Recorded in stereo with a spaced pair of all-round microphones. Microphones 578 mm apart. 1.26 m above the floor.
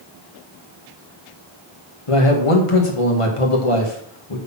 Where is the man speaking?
60° left (ahead or behind), 1.7 m.